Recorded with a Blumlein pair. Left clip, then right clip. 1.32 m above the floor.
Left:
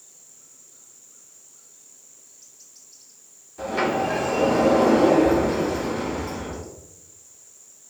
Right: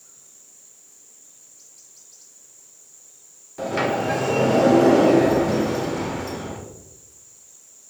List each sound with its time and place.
3.6 s a sliding door: 20° right, 2 m